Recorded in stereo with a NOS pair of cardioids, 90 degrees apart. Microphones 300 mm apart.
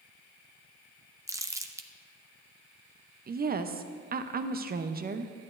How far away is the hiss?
No hiss in this recording.